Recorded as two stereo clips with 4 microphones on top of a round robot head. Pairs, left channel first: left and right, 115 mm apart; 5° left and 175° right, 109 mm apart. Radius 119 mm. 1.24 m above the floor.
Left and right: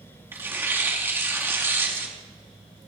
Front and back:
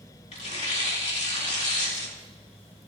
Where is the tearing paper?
20° right, 4 m.